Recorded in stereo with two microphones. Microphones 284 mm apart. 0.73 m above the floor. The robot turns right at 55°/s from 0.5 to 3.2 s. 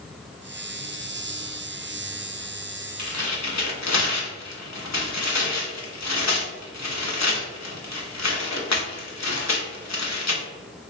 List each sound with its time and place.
3.0 s tearing paper: 70° left (ahead or behind), 0.9 m; by 10.4 s 65° left (ahead or behind), 0.9 m